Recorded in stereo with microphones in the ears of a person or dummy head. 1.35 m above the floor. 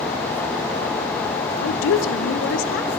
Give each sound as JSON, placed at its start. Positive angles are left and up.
{"t": 1.6, "sound": "a woman speaking", "side_deg": 65, "distance_m": 0.7}